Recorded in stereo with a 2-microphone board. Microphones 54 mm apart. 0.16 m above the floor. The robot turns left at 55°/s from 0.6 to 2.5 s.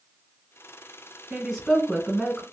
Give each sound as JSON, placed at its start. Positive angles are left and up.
{"t": 1.3, "sound": "a woman speaking", "side_deg": -5, "distance_m": 1.5}